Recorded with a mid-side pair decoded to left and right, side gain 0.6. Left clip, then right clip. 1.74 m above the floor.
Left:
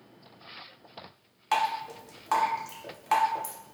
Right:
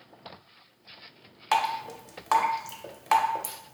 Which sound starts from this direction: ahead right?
Dripping, at 1.5 s.